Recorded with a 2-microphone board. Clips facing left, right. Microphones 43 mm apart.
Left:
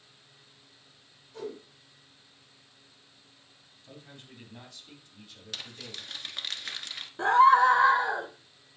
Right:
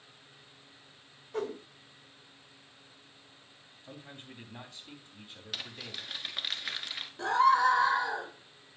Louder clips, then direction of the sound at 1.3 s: Right 4 dB; 60° right (ahead or behind).